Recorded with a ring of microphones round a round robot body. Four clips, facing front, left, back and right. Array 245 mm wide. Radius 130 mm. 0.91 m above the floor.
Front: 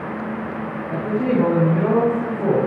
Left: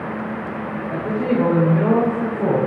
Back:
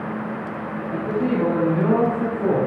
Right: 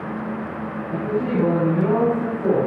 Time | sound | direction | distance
0.9 | a man speaking | 35° left | 3.5 m